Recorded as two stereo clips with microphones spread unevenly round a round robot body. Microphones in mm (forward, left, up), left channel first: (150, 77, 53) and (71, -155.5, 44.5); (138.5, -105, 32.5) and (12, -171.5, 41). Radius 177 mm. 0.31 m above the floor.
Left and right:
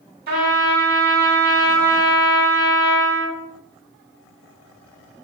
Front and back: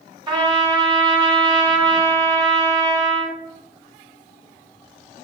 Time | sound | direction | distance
0.3 | a trumpet | 110° right | 1.2 m